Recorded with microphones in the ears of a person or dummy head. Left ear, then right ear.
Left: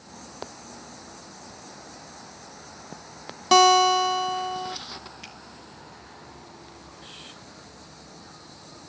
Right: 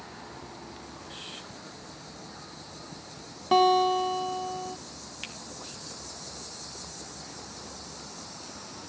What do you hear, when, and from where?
3.5 s a guitar: 75° left (ahead or behind), 1.2 m
5.2 s a finger snap: 35° right (ahead or behind), 1.9 m